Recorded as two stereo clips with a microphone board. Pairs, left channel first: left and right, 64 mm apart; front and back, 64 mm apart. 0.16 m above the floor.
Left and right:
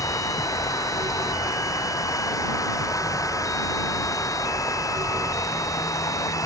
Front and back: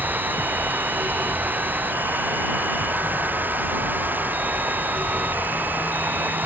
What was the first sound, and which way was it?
Running water, 120° left.